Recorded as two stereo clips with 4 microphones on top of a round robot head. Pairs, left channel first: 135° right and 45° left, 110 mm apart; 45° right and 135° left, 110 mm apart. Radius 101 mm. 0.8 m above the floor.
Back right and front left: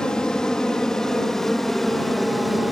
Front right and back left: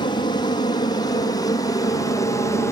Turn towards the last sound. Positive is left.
turn(degrees=-45)